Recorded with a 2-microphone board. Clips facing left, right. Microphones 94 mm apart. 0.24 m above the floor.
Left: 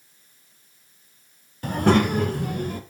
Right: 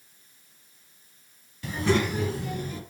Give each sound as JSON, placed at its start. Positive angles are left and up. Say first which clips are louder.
{"t": 1.6, "sound": "a child speaking", "louder": "left 6 dB", "side_deg": 50, "distance_m": 0.9}